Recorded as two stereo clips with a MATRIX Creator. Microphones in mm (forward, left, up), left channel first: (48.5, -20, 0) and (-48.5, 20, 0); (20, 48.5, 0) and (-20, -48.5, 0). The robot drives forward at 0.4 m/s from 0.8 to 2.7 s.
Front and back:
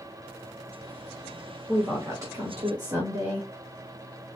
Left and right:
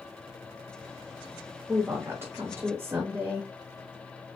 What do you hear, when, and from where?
1.7 s a woman speaking: 160° right, 0.9 m; by 3.5 s 170° right, 1.2 m